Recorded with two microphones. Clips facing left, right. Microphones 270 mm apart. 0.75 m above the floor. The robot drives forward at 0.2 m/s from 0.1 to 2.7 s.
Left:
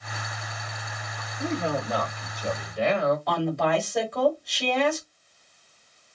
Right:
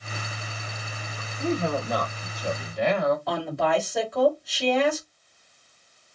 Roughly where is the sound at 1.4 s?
Centre.